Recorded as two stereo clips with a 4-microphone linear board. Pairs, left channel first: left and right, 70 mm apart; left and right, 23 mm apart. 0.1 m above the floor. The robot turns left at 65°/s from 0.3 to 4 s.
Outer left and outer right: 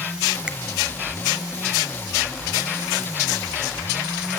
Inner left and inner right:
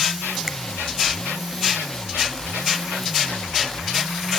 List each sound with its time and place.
0.5 s a finger snap: 15° right (ahead or behind), 1.1 m; by 0.6 s 10° right (ahead or behind), 1.1 m